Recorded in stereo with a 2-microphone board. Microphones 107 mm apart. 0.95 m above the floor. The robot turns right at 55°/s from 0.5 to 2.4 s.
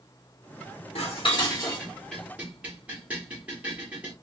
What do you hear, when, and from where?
0.9 s dishes clattering: 65° left (ahead or behind), 1.5 m; by 4.1 s 15° right (ahead or behind), 1.5 m